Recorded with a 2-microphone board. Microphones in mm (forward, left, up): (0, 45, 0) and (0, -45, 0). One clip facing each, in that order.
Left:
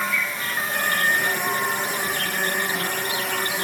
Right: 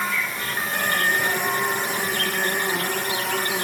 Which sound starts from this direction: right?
An insect, at 0.0 s.